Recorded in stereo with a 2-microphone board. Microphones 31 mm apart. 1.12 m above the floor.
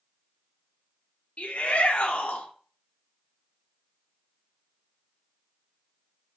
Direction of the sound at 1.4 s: 45° left (ahead or behind).